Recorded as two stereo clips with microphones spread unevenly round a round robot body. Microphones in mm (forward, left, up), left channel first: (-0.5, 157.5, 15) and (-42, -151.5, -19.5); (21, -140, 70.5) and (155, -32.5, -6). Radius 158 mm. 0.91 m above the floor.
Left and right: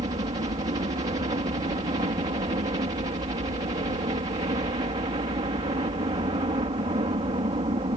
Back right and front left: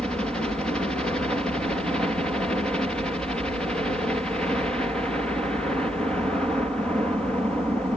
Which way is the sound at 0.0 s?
30° right.